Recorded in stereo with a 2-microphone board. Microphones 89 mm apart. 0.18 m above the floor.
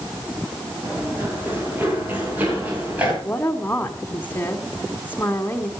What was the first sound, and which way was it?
Running footsteps, 25° right (ahead or behind).